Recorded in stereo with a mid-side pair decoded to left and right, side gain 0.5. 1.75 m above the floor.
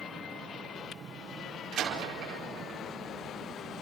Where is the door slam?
70° right, 4.5 m.